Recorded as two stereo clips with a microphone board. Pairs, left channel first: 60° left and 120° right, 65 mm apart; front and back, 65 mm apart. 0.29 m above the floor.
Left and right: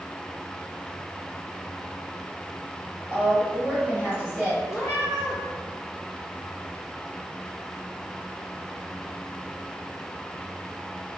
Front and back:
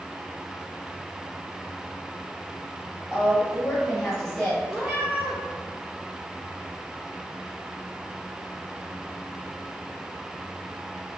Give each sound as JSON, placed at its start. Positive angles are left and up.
{"t": 3.1, "sound": "a woman speaking", "azimuth_deg": -125, "distance_m": 1.6}
{"t": 4.7, "sound": "a cat meowing", "azimuth_deg": 95, "distance_m": 1.4}